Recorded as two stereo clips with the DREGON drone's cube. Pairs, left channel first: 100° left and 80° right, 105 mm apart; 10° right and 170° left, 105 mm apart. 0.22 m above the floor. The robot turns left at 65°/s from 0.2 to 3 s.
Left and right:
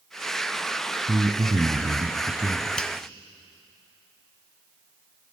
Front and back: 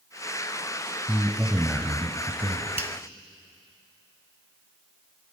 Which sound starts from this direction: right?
A man speaking, at 1.1 s.